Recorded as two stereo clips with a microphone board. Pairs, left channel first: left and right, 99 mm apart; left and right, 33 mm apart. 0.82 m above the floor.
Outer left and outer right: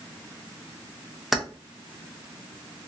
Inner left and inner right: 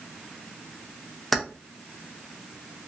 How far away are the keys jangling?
About 0.6 m.